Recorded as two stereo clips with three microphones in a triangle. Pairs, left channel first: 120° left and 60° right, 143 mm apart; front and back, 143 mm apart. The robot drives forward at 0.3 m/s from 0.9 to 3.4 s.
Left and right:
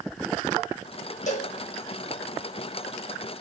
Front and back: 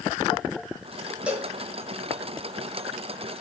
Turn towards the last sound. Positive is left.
turn(degrees=125)